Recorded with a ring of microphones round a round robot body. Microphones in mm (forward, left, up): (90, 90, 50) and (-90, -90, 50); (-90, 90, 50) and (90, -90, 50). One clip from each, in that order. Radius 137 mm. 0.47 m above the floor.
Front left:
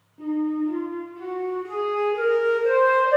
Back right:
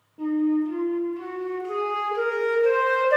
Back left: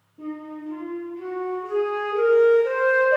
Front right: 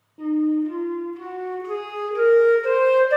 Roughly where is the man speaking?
No man speaking in this recording.